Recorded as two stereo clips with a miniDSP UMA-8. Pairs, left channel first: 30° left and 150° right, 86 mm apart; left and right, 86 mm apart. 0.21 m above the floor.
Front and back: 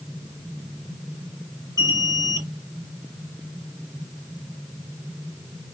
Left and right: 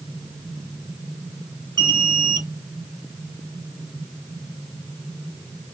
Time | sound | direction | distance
1.8 | an alarm | 125° right | 3.5 m